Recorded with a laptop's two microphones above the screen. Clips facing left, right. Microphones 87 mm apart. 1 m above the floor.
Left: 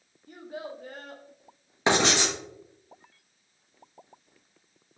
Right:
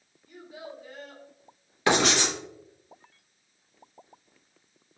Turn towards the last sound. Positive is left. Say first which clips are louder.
# even
turn(degrees=20)  # may be behind; listen again after turning